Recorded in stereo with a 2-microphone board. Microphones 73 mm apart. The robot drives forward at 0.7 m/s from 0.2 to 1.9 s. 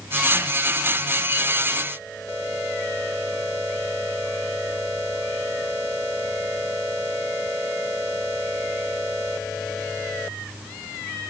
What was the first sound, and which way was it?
Only background noise.